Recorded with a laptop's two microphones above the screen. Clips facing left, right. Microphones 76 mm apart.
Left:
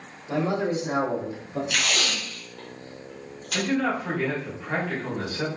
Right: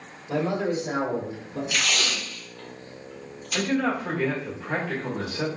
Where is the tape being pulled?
75° left (ahead or behind), 1.4 m.